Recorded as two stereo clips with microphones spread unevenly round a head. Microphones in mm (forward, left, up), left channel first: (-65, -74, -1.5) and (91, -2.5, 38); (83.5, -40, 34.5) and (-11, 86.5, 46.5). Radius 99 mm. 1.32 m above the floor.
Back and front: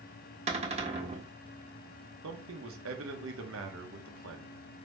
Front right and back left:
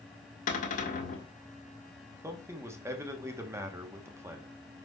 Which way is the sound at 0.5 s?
15° right.